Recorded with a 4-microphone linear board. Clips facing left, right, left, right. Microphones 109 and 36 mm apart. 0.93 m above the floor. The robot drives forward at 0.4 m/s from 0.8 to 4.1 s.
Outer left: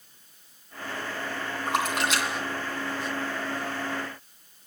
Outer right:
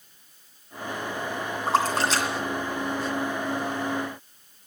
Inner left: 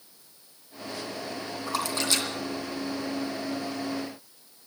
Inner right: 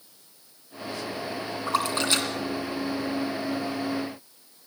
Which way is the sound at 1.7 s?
30° right (ahead or behind).